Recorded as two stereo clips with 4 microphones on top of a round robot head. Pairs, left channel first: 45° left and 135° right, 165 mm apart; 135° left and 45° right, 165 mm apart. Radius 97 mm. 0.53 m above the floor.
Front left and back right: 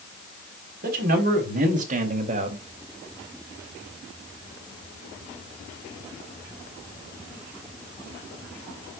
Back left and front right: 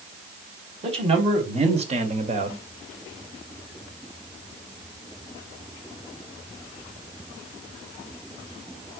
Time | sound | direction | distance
0.8 | a man speaking | 100° right | 4 m